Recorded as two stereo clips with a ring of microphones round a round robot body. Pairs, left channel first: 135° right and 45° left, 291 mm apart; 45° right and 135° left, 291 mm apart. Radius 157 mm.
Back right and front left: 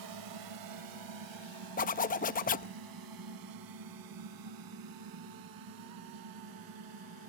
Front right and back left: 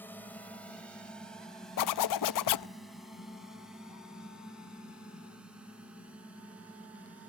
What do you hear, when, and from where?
0.0 s a drone: 40° left; by 7.3 s 50° left
1.8 s a zipper: 70° right